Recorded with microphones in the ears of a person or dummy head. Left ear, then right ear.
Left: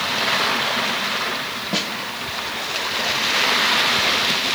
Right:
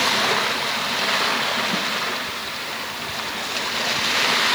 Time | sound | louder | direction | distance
1.7 | a snare drum | even | 50° left (ahead or behind) | 1.4 m